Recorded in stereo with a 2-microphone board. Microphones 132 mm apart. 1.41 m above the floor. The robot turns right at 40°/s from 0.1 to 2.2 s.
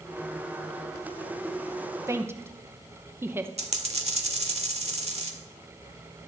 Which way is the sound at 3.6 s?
55° right (ahead or behind).